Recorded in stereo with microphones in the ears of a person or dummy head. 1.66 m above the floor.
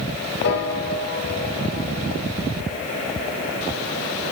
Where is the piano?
60° left (ahead or behind), 2 m.